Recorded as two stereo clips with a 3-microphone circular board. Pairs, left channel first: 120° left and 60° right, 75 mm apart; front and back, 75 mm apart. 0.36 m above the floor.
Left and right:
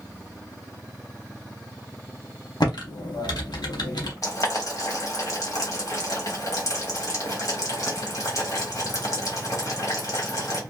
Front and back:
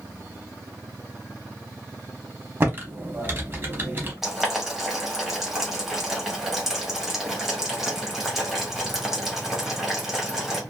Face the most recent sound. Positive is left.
turn(degrees=95)